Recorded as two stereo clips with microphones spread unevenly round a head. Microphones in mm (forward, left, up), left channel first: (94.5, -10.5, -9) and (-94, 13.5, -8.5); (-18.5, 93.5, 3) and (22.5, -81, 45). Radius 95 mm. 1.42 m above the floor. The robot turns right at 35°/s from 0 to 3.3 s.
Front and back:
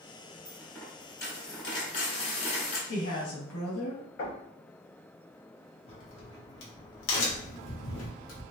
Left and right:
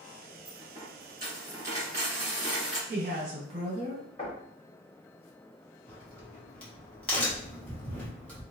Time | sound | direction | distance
0.5 | a dropped coin | 95° right | 1.6 m
2.9 | a woman speaking | 40° right | 1.5 m
4.2 | knocking | 40° left | 1.1 m
5.9 | a crack | 15° left | 1.0 m